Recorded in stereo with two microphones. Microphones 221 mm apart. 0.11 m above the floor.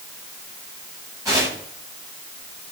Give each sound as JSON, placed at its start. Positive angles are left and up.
{"t": 1.2, "sound": "tearing paper", "side_deg": -15, "distance_m": 8.5}